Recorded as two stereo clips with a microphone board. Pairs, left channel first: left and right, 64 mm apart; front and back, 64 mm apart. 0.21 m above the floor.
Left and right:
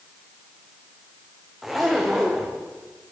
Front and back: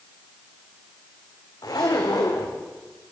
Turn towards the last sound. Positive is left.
turn(degrees=0)